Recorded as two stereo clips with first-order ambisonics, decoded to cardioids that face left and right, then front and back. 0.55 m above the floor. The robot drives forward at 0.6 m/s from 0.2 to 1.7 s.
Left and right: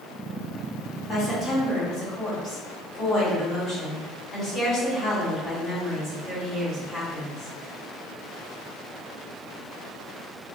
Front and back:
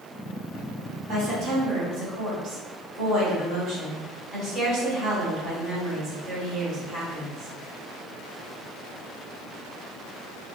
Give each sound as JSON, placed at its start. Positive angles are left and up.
{"t": 1.1, "sound": "a woman speaking", "azimuth_deg": 130, "distance_m": 1.8}